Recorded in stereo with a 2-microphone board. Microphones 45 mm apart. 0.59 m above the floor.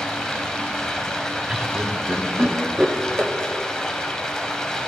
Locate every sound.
0.0 s running water: 15° left (ahead or behind), 0.9 m
1.5 s laughter: 20° right (ahead or behind), 0.8 m